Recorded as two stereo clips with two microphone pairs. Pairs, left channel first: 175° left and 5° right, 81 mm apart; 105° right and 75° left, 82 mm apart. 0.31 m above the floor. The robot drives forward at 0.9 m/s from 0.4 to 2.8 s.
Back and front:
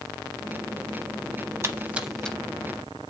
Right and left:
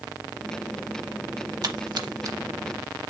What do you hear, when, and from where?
1.6 s a splash: 50° left, 0.7 m; by 2.4 s 115° left, 0.6 m